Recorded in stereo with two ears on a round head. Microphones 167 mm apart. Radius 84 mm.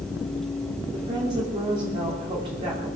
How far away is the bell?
I don't hear a bell.